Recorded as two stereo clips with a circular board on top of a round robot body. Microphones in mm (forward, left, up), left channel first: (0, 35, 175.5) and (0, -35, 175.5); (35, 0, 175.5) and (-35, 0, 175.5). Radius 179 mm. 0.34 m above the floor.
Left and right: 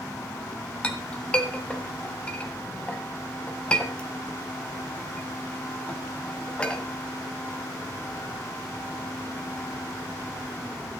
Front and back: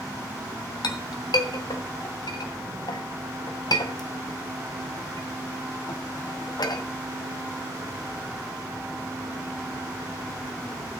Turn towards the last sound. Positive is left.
turn(degrees=15)